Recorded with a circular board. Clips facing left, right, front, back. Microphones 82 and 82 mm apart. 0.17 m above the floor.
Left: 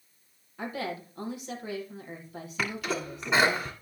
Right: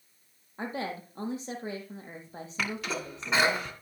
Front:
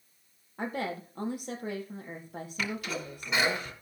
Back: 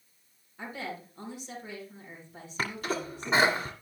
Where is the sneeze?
175° left, 1.5 m.